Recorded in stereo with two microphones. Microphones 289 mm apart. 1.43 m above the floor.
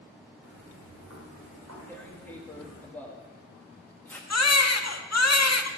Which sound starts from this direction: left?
A baby crying, at 4.3 s.